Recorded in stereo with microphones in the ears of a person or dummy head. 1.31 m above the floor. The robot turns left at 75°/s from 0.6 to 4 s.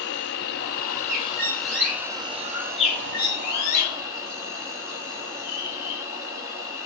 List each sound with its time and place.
0.0 s an insect: 100° left, 0.7 m; by 6.9 s 155° right, 0.7 m
1.1 s a bird: 45° right (ahead or behind), 0.9 m; by 6.0 s 65° left (ahead or behind), 0.9 m